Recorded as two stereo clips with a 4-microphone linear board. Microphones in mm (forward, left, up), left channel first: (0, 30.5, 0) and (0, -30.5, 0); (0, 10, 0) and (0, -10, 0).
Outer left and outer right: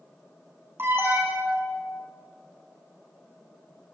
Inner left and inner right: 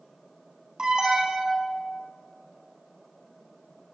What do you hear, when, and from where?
0.8 s an alarm: 45° right (ahead or behind), 8 m